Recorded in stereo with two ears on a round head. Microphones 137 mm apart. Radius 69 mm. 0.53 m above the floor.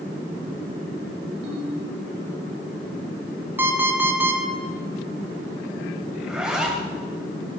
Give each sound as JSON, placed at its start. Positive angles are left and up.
{"t": 1.4, "sound": "a ringtone", "side_deg": -80, "distance_m": 4.0}
{"t": 3.6, "sound": "an alarm clock", "side_deg": -15, "distance_m": 2.5}
{"t": 6.2, "sound": "a zipper", "side_deg": -5, "distance_m": 2.5}